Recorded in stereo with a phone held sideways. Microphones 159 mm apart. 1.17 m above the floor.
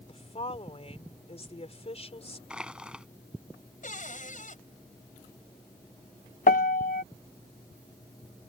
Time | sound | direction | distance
0.1 | a woman speaking | 40° left (ahead or behind) | ?
2.5 | crushing | 5° right (ahead or behind) | ?
3.8 | a cupboard door | 55° left (ahead or behind) | ?
6.5 | a piano | 60° left (ahead or behind) | ?